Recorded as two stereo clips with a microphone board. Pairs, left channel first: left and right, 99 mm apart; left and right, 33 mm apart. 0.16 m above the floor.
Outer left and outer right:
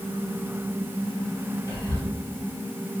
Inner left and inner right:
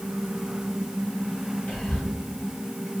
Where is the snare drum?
No snare drum in this recording.